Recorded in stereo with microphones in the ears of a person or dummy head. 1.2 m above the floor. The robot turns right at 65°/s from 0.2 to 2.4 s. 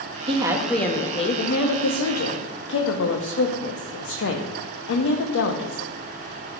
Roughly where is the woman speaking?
Ahead right.